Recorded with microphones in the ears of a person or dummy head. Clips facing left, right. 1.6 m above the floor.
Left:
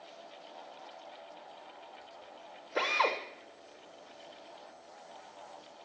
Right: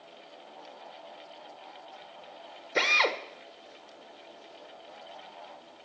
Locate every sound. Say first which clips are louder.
2.8 s a drill: right 2 dB; 35° right (ahead or behind), 0.8 m